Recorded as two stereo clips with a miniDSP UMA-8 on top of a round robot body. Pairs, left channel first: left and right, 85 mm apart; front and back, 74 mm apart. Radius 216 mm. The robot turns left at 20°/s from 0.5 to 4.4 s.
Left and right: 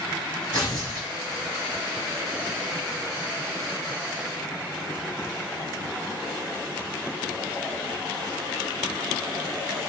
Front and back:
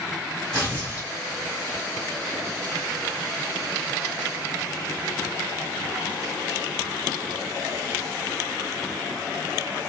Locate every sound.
0.5 s tearing paper: 80° left, 1.4 m; by 1.1 s 70° left, 1.4 m